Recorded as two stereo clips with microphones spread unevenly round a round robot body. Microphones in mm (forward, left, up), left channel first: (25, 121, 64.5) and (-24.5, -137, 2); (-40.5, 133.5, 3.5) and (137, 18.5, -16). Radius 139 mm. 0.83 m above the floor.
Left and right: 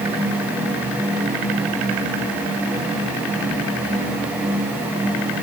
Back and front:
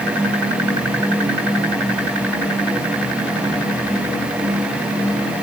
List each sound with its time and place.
Only background noise.